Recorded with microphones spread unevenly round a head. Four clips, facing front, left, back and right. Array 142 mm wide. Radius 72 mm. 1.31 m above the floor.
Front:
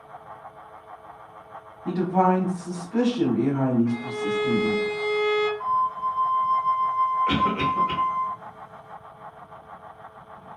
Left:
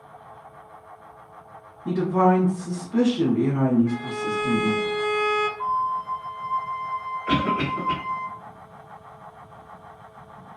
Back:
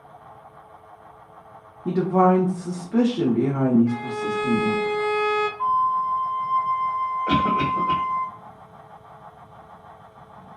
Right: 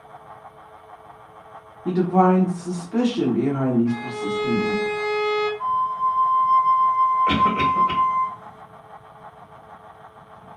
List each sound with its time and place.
1.9 s a woman speaking: 150° right, 0.9 m
3.9 s a violin: 170° left, 0.7 m
5.6 s a flute: 175° right, 1.6 m
7.3 s a cough: 130° right, 1.2 m